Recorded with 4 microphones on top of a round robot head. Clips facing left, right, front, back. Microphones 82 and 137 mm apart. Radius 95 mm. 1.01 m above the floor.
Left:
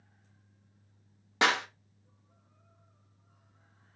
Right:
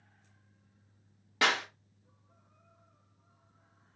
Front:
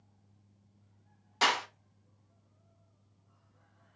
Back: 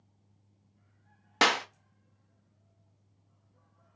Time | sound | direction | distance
1.4 | a clap | 160° left | 0.5 m